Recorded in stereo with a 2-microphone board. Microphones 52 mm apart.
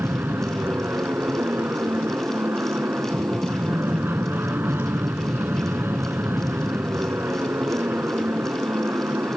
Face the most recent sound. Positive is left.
turn(degrees=-45)  # may be behind; listen again after turning